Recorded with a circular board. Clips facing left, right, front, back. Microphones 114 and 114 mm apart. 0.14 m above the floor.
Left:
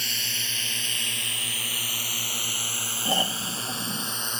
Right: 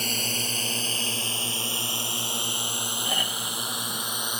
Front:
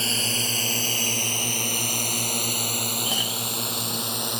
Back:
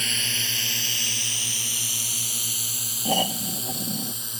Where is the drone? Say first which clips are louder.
Right 7 dB, front 5 dB; 50° right; by 4.4 s 10° right.